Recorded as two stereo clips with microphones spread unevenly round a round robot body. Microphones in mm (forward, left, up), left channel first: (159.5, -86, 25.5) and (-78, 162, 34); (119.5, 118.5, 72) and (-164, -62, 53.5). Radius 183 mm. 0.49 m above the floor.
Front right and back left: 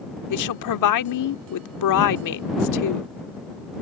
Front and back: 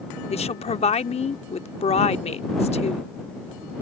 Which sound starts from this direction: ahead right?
A woman speaking, at 0.3 s.